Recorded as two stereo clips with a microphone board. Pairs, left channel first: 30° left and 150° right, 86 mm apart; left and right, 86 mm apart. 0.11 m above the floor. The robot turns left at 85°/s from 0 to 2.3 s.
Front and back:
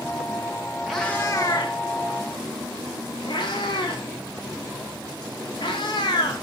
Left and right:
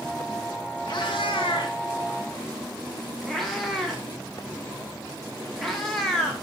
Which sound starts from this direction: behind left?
A cat meowing, at 0.9 s.